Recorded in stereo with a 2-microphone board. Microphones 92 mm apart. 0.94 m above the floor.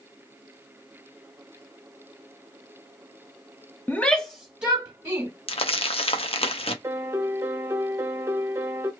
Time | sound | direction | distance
3.9 | a shout | 20° left (ahead or behind) | 0.5 m
5.5 | crumpling | 75° left (ahead or behind) | 0.6 m
6.8 | a piano | 25° right (ahead or behind) | 0.7 m